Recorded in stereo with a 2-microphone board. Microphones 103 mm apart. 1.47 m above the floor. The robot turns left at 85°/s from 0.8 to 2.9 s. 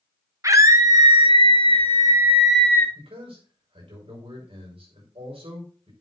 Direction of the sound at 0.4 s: 35° right.